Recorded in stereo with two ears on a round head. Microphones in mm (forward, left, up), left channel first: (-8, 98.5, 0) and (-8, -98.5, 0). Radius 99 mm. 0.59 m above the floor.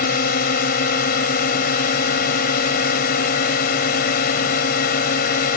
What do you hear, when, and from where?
0.0 s a drone: 40° left (ahead or behind)